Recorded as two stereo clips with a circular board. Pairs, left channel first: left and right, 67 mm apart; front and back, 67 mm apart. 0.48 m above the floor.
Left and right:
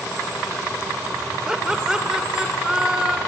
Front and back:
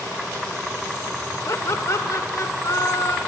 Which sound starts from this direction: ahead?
Laughter, at 1.5 s.